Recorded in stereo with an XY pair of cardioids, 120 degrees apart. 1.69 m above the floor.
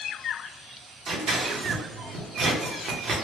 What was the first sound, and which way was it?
Scissors, 50° right.